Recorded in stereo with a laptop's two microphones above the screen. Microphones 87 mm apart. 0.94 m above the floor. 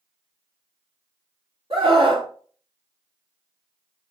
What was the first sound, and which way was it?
A scream, 65° right (ahead or behind).